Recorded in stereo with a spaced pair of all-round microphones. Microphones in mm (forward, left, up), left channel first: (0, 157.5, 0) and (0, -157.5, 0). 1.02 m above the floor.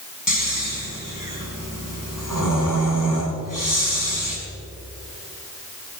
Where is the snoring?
75° left (ahead or behind), 5 m.